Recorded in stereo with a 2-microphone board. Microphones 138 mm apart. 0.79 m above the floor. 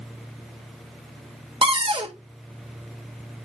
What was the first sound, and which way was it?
A cupboard door, 40° right (ahead or behind).